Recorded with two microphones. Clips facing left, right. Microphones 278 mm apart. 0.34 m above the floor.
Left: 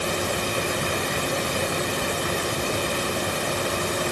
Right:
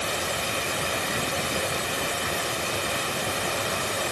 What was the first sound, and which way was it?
Only background noise.